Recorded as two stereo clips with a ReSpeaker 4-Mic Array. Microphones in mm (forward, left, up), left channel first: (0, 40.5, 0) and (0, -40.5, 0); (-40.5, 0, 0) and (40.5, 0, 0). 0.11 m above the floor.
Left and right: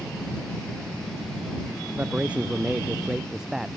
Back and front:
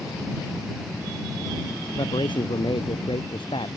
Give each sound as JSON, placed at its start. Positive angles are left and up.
{"t": 1.9, "sound": "a man speaking", "azimuth_deg": -160}